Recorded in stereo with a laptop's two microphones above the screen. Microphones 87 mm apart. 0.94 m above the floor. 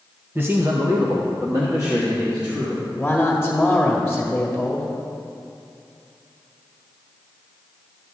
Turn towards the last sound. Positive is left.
turn(degrees=5)  # may be behind; listen again after turning